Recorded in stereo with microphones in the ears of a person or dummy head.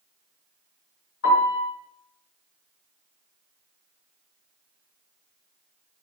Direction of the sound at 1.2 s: 85° left.